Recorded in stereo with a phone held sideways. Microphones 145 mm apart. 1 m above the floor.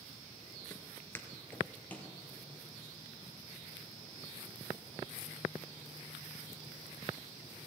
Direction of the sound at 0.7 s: 20° left (ahead or behind).